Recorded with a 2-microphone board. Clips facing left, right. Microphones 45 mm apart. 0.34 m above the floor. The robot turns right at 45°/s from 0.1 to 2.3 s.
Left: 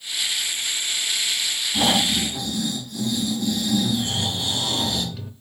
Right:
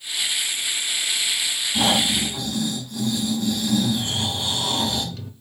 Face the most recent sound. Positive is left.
turn(degrees=10)  # may be behind; listen again after turning